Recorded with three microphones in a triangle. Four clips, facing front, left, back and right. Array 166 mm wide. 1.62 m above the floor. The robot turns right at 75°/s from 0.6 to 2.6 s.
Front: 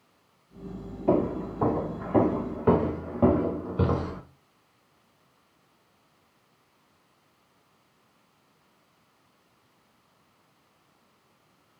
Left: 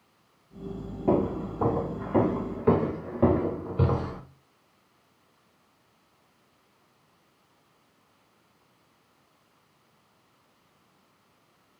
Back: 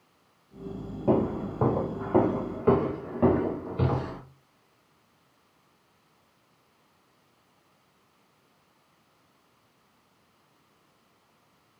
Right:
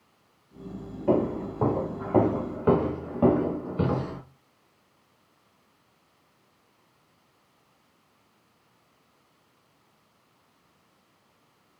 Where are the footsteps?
140° left, 2.0 m; by 4.2 s 15° left, 1.6 m.